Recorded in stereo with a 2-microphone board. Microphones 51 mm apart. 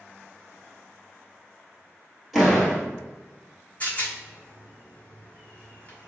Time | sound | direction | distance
2.3 | a door slam | centre (ahead or behind) | 1.5 m
3.8 | a rattle | 30° left (ahead or behind) | 0.8 m